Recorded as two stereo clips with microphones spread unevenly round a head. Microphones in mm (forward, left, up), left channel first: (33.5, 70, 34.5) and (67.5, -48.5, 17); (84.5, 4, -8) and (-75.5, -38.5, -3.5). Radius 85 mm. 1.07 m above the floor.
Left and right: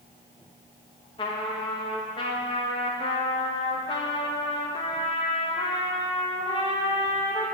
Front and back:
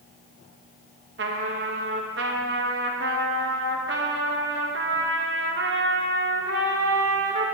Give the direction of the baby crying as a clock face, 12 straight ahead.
I don't hear a baby crying.